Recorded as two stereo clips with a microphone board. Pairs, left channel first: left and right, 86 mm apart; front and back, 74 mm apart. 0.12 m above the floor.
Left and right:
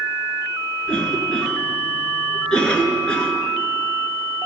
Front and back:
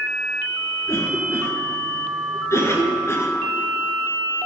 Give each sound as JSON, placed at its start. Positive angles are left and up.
{"t": 0.9, "sound": "a cough", "azimuth_deg": 20, "distance_m": 2.0}